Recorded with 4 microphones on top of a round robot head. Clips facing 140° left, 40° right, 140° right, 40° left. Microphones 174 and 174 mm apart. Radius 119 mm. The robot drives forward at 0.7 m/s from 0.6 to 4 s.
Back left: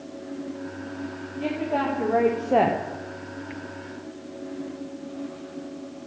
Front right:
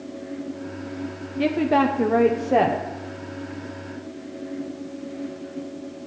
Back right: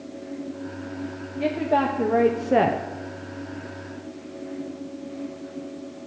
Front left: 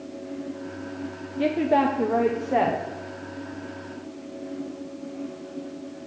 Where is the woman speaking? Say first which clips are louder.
Front right 6 dB, front left 2 dB; 20° right, 0.8 m; by 2.9 s 150° right, 0.7 m.